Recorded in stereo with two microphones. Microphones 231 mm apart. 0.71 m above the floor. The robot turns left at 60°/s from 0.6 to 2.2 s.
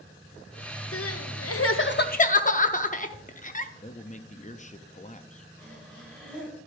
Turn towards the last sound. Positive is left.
turn(degrees=5)  # may be behind; listen again after turning